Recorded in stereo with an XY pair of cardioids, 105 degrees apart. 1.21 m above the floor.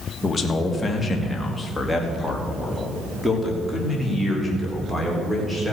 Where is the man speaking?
25° left, 1.7 m; by 5.7 s 5° right, 5 m.